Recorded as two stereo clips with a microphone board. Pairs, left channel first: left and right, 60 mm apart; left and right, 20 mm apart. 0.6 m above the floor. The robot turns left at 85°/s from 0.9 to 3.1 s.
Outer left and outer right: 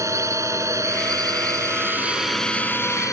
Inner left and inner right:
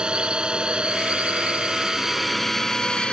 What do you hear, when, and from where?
0.0 s a drone: 55° right; by 3.1 s 115° left